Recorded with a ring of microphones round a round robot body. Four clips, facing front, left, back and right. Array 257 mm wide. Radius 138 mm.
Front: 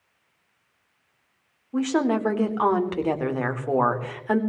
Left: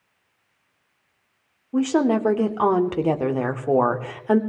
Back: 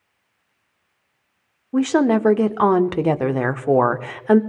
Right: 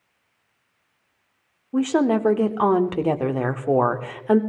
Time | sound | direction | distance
1.7 | a woman speaking | 175° right | 0.9 m